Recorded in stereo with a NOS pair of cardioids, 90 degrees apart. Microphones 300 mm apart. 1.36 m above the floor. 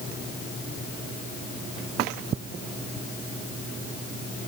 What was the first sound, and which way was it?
Only background noise.